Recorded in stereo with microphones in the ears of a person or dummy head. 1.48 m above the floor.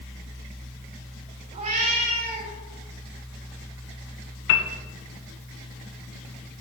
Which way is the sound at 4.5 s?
60° left (ahead or behind).